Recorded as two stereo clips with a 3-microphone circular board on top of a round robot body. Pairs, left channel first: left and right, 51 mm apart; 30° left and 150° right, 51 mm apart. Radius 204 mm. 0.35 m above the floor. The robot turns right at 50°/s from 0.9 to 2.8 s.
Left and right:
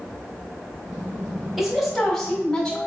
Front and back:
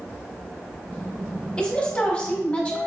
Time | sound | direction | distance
1.6 | a woman speaking | 15° right | 1.5 m